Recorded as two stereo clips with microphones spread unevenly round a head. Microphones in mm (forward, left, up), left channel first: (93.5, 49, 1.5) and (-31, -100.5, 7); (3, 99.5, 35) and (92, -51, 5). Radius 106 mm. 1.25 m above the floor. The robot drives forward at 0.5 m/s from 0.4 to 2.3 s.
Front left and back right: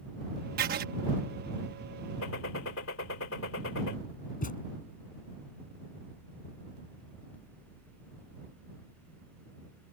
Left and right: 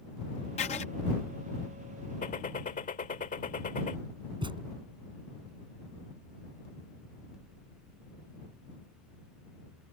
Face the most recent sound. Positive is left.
turn(degrees=5)